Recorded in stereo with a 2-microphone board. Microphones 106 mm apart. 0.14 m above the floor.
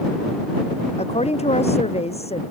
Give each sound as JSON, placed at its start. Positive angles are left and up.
{"t": 1.0, "sound": "a woman speaking", "side_deg": 80}